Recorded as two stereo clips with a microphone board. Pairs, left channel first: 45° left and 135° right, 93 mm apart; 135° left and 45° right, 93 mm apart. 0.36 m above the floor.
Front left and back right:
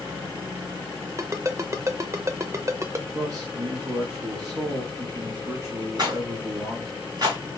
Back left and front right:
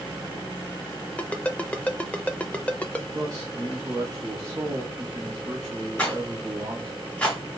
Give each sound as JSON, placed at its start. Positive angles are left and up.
{"t": 1.2, "sound": "a ringtone", "azimuth_deg": -160, "distance_m": 0.6}
{"t": 3.1, "sound": "a man speaking", "azimuth_deg": -90, "distance_m": 2.5}
{"t": 6.0, "sound": "a rattle", "azimuth_deg": -150, "distance_m": 1.7}